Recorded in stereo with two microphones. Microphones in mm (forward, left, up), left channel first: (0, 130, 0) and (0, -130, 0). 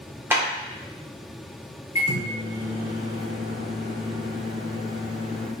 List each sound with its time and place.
0.3 s a clap: 10° right (ahead or behind), 0.8 m
1.9 s a microwave: 25° left (ahead or behind), 0.8 m